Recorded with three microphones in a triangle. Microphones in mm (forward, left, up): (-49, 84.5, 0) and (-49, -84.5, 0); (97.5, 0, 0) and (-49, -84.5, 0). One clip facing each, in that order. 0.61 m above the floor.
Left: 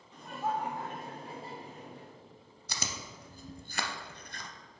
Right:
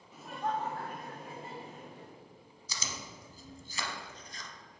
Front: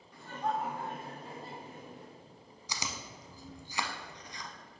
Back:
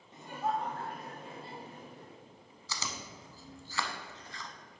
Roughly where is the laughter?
Behind.